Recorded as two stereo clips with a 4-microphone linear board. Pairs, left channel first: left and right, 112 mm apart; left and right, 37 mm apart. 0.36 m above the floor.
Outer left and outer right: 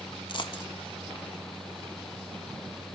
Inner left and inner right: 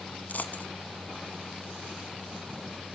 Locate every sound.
0.3 s a dropped coin: 45° left (ahead or behind), 1.0 m